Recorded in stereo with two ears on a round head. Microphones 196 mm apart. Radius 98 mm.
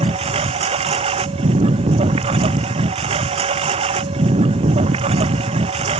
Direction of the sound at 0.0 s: 30° right (ahead or behind).